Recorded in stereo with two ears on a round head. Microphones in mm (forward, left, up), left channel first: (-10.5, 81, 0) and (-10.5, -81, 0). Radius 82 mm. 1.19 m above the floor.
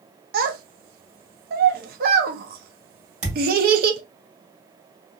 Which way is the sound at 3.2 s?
40° right (ahead or behind).